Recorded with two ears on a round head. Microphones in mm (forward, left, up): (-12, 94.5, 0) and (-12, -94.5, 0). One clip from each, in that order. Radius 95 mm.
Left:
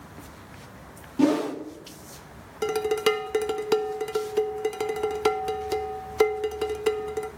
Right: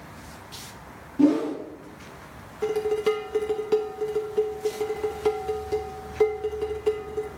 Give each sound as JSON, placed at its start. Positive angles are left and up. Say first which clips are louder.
{"t": 1.2, "sound": "a whoosh", "louder": "right 1 dB", "side_deg": 35, "distance_m": 0.6}
{"t": 2.6, "sound": "dishes clattering", "louder": "even", "side_deg": 45, "distance_m": 0.5}